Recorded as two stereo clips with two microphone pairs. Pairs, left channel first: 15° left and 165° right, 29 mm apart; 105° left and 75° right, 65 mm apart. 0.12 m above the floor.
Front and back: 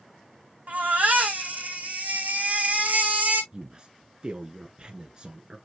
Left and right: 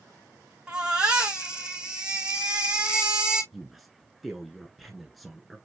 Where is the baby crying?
150° right, 2.5 m.